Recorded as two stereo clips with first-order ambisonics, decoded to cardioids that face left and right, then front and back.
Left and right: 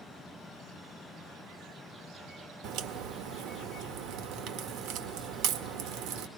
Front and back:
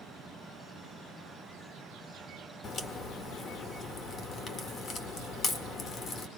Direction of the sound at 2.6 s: 60° right.